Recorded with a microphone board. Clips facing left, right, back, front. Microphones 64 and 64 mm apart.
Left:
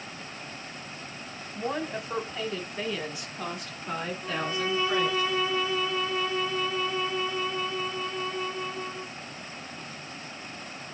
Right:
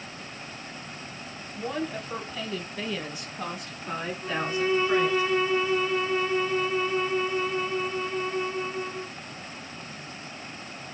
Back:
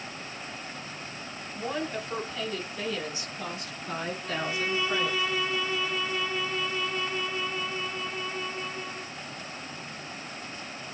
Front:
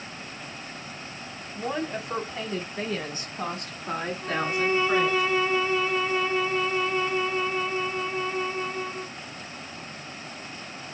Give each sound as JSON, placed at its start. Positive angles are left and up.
{"t": 1.6, "sound": "a woman speaking", "azimuth_deg": 60, "distance_m": 1.2}
{"t": 4.2, "sound": "a violin", "azimuth_deg": -45, "distance_m": 1.1}